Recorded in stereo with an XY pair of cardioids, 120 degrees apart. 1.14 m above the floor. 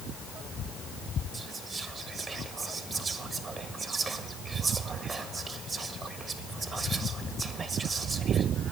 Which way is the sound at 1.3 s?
35° right.